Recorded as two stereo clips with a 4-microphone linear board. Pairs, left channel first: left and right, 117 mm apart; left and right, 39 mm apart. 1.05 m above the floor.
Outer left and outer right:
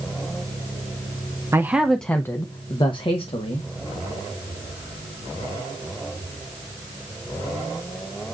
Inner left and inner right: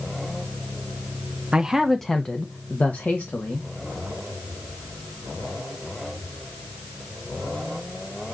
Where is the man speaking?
25° right (ahead or behind), 0.7 m; by 3.7 s 55° left (ahead or behind), 1.5 m.